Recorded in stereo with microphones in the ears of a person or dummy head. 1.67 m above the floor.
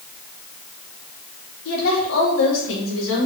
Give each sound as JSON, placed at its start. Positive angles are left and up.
{"t": 1.6, "sound": "a woman speaking", "side_deg": 80, "distance_m": 4.0}